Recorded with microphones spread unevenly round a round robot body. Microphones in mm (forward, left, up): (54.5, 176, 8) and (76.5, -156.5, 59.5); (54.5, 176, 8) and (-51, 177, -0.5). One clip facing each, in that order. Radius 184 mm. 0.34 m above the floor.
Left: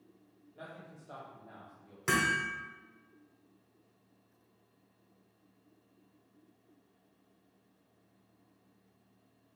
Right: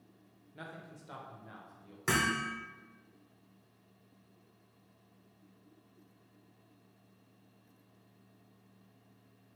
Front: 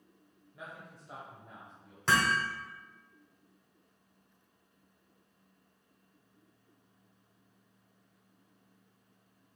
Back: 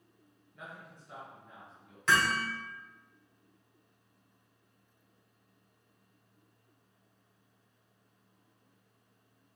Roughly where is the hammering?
Ahead.